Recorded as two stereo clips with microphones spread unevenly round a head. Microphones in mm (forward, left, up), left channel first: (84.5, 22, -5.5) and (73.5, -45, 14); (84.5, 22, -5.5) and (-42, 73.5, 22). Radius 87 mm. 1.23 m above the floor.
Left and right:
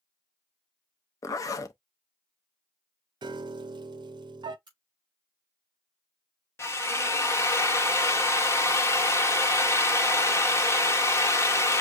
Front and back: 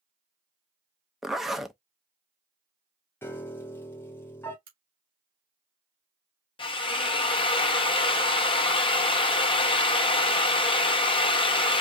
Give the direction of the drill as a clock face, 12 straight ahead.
11 o'clock.